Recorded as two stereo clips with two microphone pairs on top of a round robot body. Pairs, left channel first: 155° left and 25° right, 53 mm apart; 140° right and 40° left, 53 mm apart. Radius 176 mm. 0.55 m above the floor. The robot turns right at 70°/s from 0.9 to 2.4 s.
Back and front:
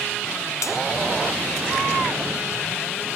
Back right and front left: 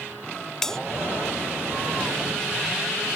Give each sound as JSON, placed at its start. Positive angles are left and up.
{"t": 0.6, "sound": "a bell", "azimuth_deg": 140}